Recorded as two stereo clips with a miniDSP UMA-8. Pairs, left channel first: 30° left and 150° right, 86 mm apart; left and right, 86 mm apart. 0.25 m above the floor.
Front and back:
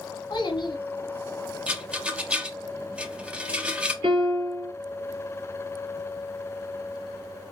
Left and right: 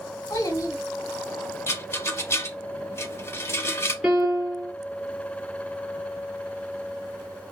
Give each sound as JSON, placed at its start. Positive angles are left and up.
{"t": 0.3, "sound": "a child speaking", "azimuth_deg": 40, "distance_m": 1.2}
{"t": 1.7, "sound": "a rattle", "azimuth_deg": 140, "distance_m": 0.5}
{"t": 4.0, "sound": "a piano", "azimuth_deg": -175, "distance_m": 1.9}